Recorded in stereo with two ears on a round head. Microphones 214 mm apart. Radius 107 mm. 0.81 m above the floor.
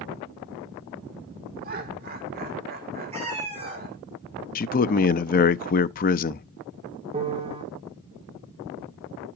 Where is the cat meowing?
30° right (ahead or behind), 5 m.